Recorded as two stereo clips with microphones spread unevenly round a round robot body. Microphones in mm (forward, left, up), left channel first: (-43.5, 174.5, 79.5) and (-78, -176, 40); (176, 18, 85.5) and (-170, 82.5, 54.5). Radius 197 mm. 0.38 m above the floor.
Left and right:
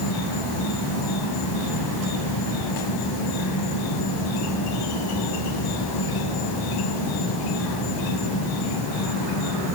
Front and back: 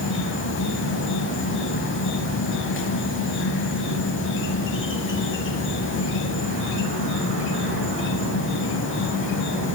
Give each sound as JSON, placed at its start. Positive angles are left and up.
{"t": 0.0, "sound": "an insect", "azimuth_deg": 50, "distance_m": 1.1}